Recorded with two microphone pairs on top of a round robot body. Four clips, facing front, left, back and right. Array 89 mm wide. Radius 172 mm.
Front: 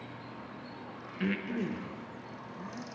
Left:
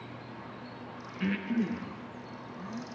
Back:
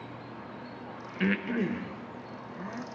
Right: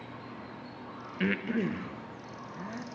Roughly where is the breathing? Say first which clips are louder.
Right 1 dB, back 4 dB; behind right.